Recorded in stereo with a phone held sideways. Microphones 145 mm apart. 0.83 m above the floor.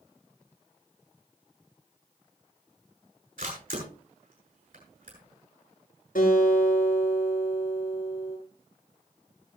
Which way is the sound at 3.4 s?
75° right (ahead or behind).